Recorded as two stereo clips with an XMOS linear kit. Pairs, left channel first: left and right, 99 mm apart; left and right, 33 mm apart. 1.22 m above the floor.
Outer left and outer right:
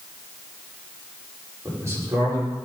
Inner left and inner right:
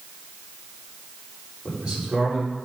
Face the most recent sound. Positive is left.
turn(degrees=-30)  # may be behind; listen again after turning